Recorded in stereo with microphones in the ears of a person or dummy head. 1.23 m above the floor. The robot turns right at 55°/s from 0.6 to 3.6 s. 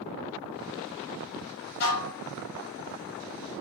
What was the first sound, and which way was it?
Dishes clattering, 55° left (ahead or behind).